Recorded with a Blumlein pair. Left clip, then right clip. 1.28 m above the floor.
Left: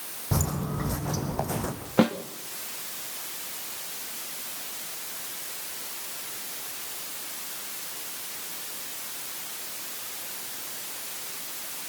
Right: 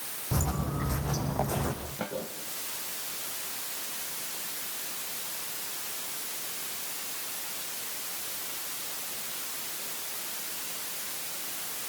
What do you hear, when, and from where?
0.3 s footsteps: 15° left, 4.5 m; by 1.7 s 5° left, 5 m
2.0 s a snare drum: 45° left, 2.5 m